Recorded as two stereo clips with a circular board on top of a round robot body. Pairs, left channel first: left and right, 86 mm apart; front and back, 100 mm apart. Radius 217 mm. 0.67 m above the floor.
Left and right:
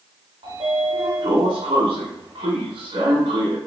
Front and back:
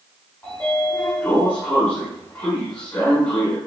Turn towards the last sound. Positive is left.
turn(degrees=-75)